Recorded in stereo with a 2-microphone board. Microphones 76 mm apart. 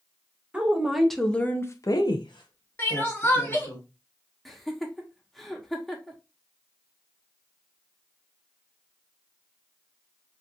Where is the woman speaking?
10° right (ahead or behind), 1.0 m; by 3.8 s 65° left (ahead or behind), 1.4 m.